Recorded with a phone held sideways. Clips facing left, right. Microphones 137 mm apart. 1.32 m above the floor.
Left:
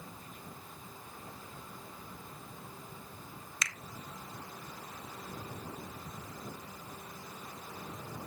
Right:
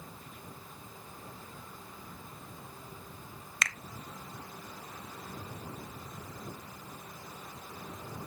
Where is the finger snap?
60° right (ahead or behind), 0.5 m.